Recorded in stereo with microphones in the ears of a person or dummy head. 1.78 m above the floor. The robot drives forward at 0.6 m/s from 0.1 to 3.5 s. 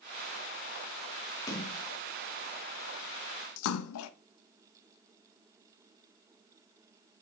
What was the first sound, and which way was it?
A splash, 25° left (ahead or behind).